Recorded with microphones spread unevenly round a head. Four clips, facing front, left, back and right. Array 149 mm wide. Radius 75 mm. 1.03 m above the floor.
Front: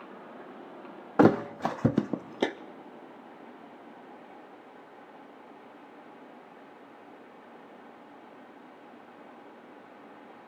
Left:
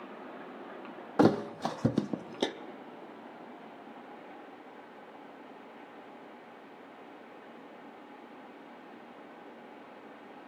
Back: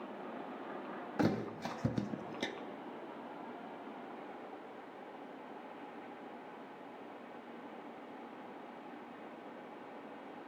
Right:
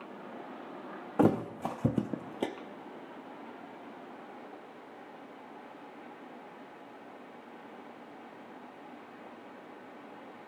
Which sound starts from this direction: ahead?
A thud, at 1.2 s.